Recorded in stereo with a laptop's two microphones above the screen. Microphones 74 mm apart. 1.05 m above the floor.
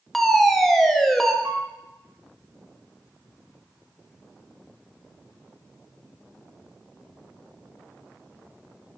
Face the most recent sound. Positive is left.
turn(degrees=-45)  # may be behind; listen again after turning